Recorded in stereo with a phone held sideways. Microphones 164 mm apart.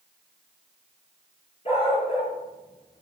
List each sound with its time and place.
1.6 s a dog barking: 35° left (ahead or behind), 6 m; by 3.0 s 25° left (ahead or behind), 5 m